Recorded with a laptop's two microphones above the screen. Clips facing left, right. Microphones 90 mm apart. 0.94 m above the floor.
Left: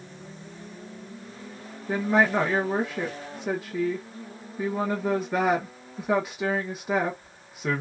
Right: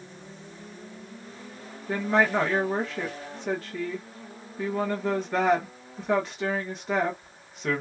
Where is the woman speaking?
10° left (ahead or behind), 1.0 m.